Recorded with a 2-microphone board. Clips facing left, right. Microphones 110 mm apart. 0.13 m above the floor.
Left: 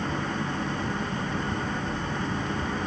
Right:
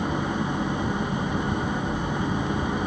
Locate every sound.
0.0 s an engine running: 15° right (ahead or behind)